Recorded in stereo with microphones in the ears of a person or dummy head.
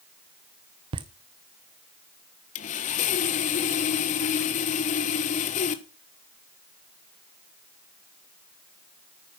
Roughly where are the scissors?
I don't hear scissors.